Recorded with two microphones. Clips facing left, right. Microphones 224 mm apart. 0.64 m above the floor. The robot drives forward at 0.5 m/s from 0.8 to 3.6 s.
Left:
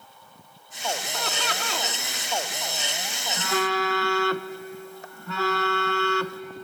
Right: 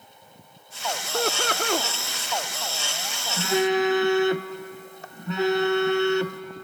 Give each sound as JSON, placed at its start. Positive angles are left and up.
{"t": 1.1, "sound": "laughter", "side_deg": -50, "distance_m": 1.0}
{"t": 3.4, "sound": "a phone buzzing", "side_deg": -20, "distance_m": 0.8}